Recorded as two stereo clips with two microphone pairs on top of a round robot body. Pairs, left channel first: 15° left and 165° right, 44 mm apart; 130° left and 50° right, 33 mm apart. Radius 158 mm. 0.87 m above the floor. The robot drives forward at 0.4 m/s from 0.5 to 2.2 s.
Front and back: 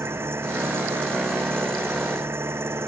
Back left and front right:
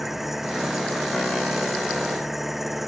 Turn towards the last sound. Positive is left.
turn(degrees=-140)